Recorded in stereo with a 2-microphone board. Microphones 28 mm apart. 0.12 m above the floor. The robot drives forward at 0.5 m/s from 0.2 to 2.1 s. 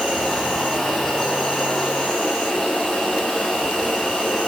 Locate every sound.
0.0 s an insect: 15° left (ahead or behind), 6 m; by 4.5 s 20° left (ahead or behind), 5 m